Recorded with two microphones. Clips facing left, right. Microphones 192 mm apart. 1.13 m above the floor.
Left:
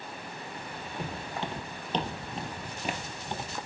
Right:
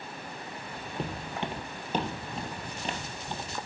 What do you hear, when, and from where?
1.0 s footsteps: 25° right (ahead or behind), 1.3 m; by 3.5 s 20° left (ahead or behind), 1.2 m